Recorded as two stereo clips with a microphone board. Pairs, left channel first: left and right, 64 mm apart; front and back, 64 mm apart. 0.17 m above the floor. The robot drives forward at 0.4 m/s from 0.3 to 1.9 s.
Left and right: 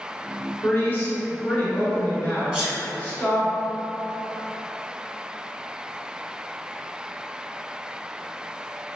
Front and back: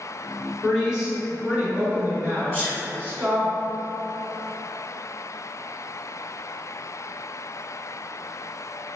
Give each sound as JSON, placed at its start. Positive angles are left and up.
{"t": 0.6, "sound": "a woman speaking", "azimuth_deg": 95, "distance_m": 1.1}
{"t": 2.5, "sound": "a sneeze", "azimuth_deg": -50, "distance_m": 1.1}